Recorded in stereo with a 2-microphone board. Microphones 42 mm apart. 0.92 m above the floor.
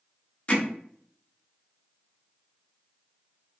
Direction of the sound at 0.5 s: 30° left (ahead or behind).